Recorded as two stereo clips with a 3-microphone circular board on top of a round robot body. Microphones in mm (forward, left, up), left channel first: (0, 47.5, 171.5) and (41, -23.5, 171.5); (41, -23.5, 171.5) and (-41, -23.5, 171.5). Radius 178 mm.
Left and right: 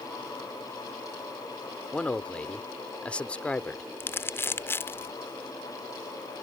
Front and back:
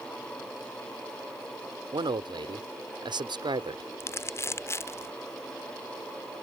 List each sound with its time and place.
1.9 s a man speaking: 165° right
4.0 s crumpling: 55° left